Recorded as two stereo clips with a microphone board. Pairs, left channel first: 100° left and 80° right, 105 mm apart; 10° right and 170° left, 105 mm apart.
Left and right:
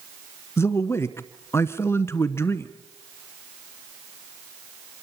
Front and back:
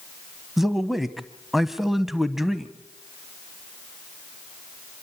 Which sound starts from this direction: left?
A man speaking, at 0.6 s.